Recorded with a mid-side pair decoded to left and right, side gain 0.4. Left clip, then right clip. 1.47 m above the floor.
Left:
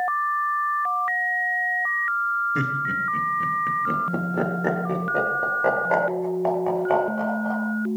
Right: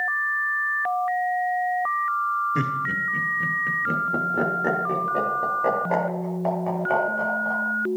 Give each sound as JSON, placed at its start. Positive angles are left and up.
{"t": 2.5, "sound": "laughter", "azimuth_deg": -5, "distance_m": 2.0}